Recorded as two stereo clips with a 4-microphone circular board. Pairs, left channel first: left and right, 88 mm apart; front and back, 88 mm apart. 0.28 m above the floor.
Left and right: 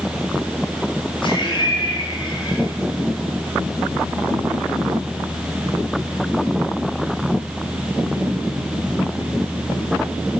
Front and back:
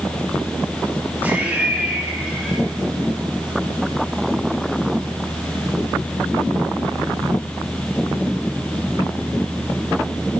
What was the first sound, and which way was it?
Laughter, 110° left.